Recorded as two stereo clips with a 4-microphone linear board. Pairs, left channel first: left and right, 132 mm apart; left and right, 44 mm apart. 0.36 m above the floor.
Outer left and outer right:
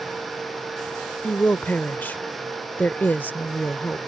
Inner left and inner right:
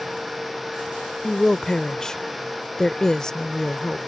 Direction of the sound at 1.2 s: 15° left (ahead or behind).